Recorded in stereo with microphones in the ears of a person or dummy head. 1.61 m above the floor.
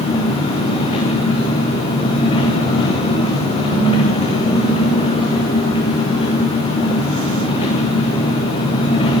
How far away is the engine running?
About 1.9 m.